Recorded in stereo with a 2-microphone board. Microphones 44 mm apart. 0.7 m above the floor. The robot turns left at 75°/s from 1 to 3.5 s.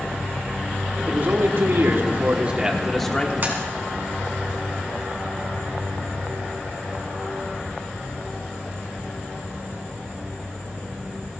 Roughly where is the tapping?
Right.